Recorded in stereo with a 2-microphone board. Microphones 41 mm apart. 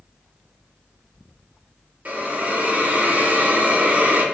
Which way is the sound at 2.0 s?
45° right (ahead or behind).